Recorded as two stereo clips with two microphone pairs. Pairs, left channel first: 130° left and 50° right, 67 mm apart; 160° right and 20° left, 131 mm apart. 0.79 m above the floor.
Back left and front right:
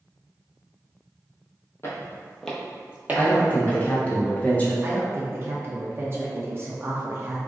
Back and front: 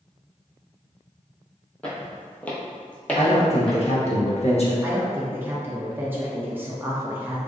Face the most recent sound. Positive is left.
turn(degrees=-45)